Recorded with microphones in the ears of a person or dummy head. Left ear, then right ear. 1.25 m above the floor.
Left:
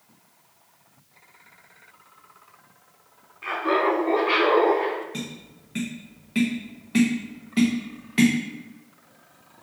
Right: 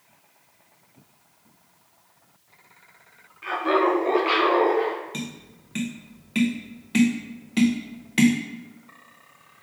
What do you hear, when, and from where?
3.4 s laughter: 5° left (ahead or behind), 0.7 m; by 5.0 s 60° right (ahead or behind), 1.3 m
5.1 s tapping: 10° right (ahead or behind), 0.5 m